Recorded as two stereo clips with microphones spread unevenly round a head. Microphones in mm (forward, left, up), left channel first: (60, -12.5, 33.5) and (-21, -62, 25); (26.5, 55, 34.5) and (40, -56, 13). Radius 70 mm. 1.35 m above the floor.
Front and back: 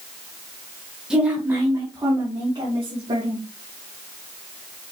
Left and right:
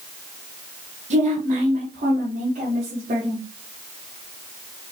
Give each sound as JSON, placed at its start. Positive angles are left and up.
{"t": 1.1, "sound": "a woman speaking", "azimuth_deg": -65, "distance_m": 1.4}